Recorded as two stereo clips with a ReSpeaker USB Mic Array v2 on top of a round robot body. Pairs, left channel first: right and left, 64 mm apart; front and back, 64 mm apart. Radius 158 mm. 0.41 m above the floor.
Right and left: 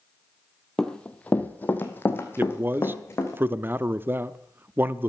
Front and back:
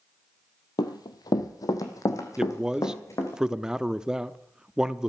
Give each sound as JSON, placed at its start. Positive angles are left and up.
{"t": 0.8, "sound": "running footsteps", "azimuth_deg": -10, "distance_m": 0.8}
{"t": 2.4, "sound": "a man speaking", "azimuth_deg": 110, "distance_m": 0.8}